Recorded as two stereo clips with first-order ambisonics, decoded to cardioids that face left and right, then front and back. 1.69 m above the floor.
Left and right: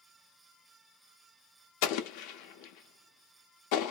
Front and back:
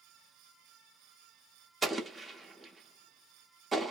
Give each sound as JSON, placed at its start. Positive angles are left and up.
{"t": 1.8, "sound": "an explosion", "azimuth_deg": 100, "distance_m": 0.7}